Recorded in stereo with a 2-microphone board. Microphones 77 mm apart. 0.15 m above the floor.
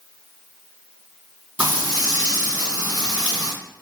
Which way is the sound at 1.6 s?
20° right (ahead or behind).